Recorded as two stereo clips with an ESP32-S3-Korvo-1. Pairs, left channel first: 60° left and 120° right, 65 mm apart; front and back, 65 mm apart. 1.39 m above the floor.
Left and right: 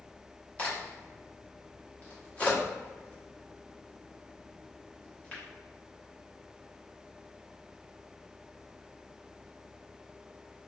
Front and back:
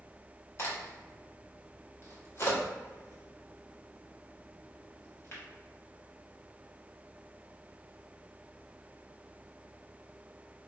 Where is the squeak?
No squeak in this recording.